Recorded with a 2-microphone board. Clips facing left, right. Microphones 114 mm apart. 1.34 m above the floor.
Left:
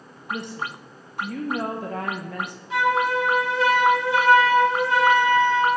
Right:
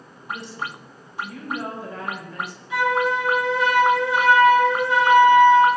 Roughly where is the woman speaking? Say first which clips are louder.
Left 1 dB; left.